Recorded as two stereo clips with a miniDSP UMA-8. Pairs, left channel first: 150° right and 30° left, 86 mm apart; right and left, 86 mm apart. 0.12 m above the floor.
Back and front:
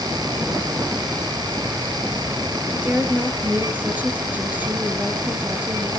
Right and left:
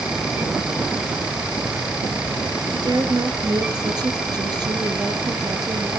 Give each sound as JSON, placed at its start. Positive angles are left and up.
{"t": 2.7, "sound": "a woman speaking", "azimuth_deg": 95, "distance_m": 1.9}